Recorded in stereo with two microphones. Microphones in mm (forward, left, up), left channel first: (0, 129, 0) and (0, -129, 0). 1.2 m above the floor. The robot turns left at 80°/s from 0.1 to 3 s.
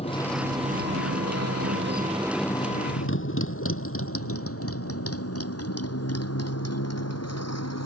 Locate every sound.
0.0 s a motorcycle: 25° left (ahead or behind); by 7.9 s 85° left